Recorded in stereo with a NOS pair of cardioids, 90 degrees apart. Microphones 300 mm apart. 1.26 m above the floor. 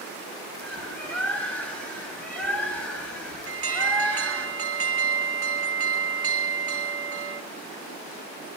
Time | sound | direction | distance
0.6 | a bird | 5° left | 6.5 m
3.5 | an alarm | 50° right | 1.6 m